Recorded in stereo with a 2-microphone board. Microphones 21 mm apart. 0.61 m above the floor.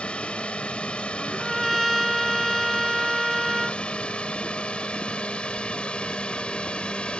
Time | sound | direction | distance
0.0 | a drone | 65° left (ahead or behind) | ?
1.2 | a trumpet | centre (ahead or behind) | ?